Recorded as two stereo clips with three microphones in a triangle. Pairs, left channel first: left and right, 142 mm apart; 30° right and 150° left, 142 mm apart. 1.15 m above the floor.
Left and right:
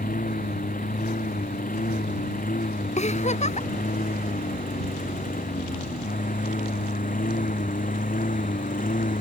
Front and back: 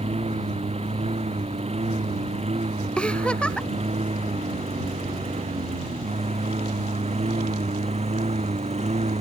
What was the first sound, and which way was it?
A lawn mower, 105° left.